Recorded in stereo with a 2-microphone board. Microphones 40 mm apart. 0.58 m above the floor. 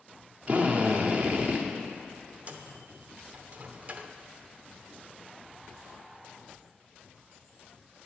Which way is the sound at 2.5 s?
40° right (ahead or behind).